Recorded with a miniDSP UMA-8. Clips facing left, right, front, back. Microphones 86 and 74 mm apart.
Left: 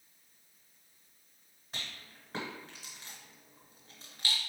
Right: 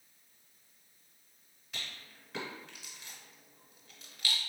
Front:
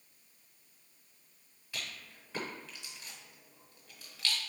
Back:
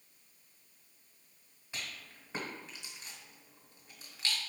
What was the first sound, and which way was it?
A rattle, 120° left.